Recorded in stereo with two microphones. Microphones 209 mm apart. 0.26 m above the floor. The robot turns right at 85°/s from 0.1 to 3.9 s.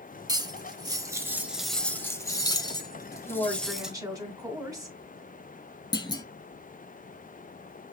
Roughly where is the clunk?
Left.